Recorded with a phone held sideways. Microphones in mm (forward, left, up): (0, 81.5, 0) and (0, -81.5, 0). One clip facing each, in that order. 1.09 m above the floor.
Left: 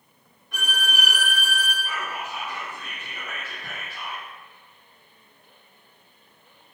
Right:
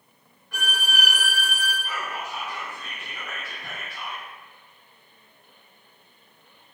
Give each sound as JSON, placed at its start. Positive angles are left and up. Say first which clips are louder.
{"t": 0.5, "sound": "a violin", "louder": "even", "side_deg": 20, "distance_m": 1.3}
{"t": 1.8, "sound": "whispering", "louder": "even", "side_deg": 5, "distance_m": 1.7}